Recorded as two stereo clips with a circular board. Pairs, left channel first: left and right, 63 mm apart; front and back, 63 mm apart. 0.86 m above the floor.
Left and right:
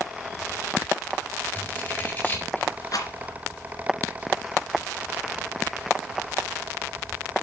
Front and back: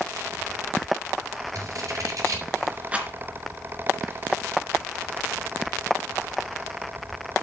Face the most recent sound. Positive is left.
turn(degrees=110)